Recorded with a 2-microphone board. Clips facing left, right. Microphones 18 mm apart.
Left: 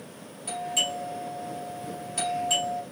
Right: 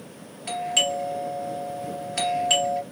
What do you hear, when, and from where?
0.5 s a doorbell: 50° right (ahead or behind), 2.5 m